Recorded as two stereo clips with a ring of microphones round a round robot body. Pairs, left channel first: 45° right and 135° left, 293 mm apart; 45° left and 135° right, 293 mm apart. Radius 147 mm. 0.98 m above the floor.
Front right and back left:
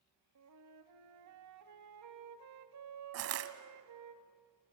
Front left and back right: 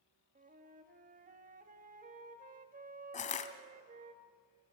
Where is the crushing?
105° left, 1.2 m.